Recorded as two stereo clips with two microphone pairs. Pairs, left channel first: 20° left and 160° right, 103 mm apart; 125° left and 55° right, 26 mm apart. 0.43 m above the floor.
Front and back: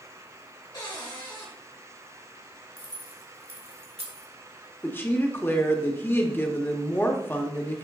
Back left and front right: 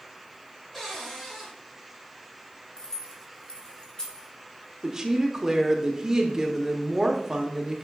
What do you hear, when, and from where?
0.7 s a cupboard door: 50° left, 2 m
2.8 s keys jangling: 175° right, 1.5 m
4.8 s a woman speaking: 25° right, 0.9 m